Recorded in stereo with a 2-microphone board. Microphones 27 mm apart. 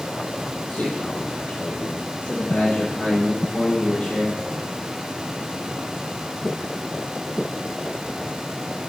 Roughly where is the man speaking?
Left.